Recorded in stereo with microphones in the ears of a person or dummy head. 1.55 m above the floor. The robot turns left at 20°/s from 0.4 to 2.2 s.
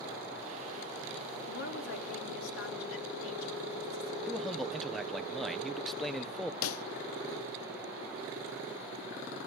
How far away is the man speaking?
About 1.0 m.